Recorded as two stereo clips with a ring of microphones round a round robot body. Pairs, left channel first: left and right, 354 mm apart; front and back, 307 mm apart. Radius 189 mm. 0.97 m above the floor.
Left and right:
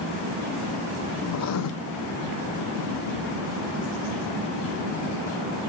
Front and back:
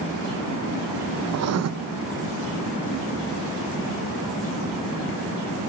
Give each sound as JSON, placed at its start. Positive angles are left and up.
{"t": 1.3, "sound": "writing", "azimuth_deg": 135, "distance_m": 0.5}